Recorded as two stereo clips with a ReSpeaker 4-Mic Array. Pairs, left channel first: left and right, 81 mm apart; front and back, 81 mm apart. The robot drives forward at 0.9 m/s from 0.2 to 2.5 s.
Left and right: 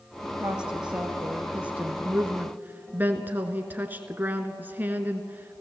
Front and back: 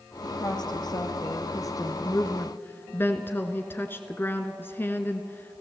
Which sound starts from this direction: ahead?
A woman speaking, at 0.2 s.